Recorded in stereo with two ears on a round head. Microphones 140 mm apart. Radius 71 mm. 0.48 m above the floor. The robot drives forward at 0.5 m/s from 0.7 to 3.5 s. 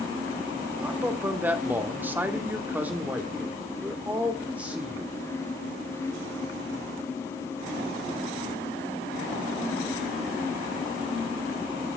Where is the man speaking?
10° right (ahead or behind), 1.1 m.